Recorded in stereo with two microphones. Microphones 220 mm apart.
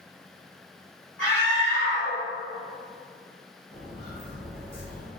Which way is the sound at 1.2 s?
65° left (ahead or behind).